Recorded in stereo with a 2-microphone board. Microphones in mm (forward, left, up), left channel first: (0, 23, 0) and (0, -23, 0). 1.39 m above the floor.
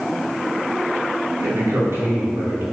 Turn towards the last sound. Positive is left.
turn(degrees=-60)  # may be behind; listen again after turning